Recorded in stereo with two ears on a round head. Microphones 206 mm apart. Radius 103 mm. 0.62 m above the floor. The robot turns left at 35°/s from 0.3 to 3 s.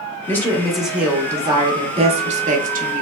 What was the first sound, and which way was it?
A woman speaking, 15° left.